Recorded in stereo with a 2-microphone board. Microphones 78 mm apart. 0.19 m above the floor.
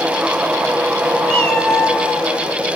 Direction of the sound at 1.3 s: 15° left (ahead or behind).